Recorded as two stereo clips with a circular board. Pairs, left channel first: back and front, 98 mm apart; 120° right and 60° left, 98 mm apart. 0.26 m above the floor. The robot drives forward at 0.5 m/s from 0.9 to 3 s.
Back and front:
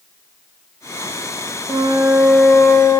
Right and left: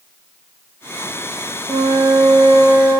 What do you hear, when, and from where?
1.7 s a flute: 50° left, 0.6 m; by 3.0 s 120° left, 0.5 m